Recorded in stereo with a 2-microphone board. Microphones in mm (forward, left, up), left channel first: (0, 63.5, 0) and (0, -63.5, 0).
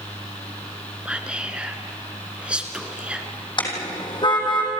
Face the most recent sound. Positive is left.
turn(degrees=40)  # may be behind; listen again after turning